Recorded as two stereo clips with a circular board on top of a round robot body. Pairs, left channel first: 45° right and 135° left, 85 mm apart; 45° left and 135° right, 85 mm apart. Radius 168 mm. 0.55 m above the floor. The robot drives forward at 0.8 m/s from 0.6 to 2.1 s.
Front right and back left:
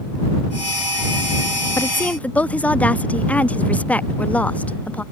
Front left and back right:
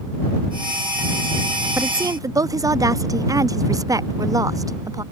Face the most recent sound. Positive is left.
turn(degrees=-115)